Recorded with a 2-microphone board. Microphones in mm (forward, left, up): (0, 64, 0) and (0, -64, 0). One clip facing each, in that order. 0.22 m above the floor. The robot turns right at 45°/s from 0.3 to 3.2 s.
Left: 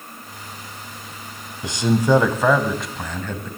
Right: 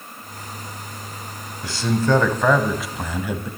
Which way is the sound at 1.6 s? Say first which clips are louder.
Left 2 dB; 20° left (ahead or behind).